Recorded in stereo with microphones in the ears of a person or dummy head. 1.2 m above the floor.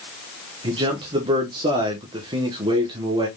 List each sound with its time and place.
0.6 s a man speaking: 25° right (ahead or behind), 0.9 m